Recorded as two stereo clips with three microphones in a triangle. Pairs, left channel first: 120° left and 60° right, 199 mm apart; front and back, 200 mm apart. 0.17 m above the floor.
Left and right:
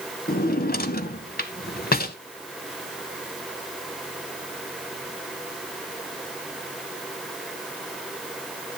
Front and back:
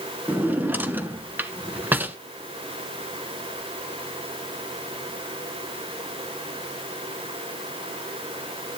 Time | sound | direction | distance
0.3 | a drawer | 105° left | 0.7 m